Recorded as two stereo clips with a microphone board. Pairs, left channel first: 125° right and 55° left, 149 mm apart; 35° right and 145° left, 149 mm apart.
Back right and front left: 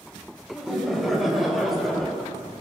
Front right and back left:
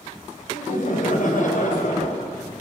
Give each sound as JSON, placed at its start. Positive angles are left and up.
{"t": 0.5, "sound": "laughter", "azimuth_deg": -35, "distance_m": 5.0}